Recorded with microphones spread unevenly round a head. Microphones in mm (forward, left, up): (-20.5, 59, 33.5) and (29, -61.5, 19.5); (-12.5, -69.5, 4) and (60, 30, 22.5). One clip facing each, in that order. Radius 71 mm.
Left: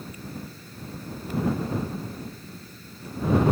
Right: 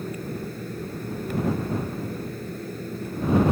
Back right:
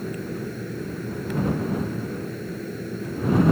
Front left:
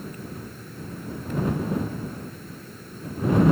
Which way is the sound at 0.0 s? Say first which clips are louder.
Right 7 dB, back right 7 dB; 110° right.